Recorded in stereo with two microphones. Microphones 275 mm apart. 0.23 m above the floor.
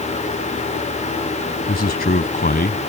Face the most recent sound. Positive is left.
turn(degrees=35)  # may be behind; listen again after turning